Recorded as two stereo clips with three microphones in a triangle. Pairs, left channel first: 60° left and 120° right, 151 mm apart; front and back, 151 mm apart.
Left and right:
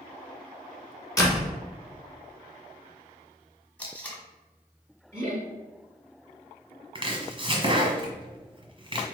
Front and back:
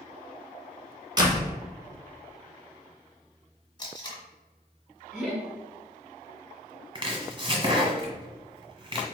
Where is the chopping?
145° right, 1.2 m.